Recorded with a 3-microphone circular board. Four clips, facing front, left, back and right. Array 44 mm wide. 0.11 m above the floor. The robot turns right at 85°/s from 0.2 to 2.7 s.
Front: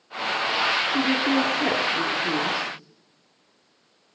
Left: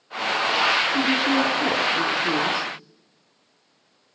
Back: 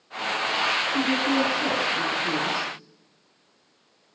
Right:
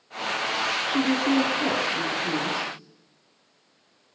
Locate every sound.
0.9 s a woman speaking: 45° right, 1.4 m; by 2.7 s 115° left, 1.4 m